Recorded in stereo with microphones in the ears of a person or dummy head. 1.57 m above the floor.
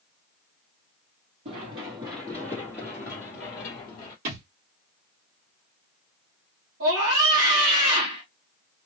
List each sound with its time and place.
1.4 s running footsteps: 30° right (ahead or behind), 1.8 m; by 4.2 s 25° left (ahead or behind), 1.8 m
4.2 s a thud: 55° right (ahead or behind), 1.8 m
6.8 s a scream: 80° right, 2 m